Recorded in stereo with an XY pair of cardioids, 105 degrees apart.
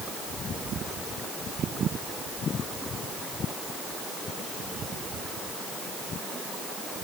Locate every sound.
Only background noise.